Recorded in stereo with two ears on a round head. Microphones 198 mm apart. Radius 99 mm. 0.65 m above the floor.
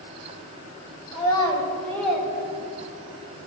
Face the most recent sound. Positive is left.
turn(degrees=-20)  # may be behind; listen again after turning